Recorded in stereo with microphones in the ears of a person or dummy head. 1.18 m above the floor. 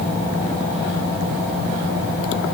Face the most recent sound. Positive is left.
No sound to turn to.